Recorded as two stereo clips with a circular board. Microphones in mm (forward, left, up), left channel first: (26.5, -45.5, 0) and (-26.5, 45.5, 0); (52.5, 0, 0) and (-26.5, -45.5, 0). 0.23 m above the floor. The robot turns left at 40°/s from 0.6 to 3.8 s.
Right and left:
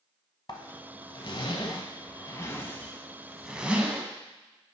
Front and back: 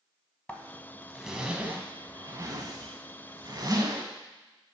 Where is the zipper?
40° right, 0.8 m; by 4.0 s 170° right, 0.8 m.